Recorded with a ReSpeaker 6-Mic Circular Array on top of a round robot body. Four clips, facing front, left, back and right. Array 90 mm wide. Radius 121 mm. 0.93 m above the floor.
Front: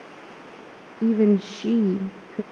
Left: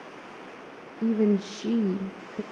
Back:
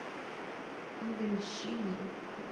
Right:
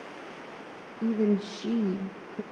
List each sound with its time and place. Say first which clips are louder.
1.0 s a woman speaking: left 2 dB, front 17 dB; 5° left, 0.7 m